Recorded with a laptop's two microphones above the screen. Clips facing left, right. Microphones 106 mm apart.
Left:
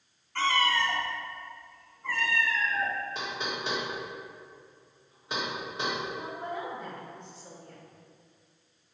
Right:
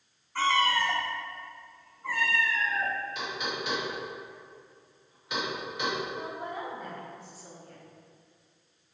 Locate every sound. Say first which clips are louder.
0.3 s a cat meowing: right 1 dB; 10° right (ahead or behind), 1.2 m; by 2.9 s 5° right (ahead or behind), 2.0 m
3.1 s knocking: even; 35° left (ahead or behind), 1.6 m
6.1 s a woman speaking: even; 5° right (ahead or behind), 1.4 m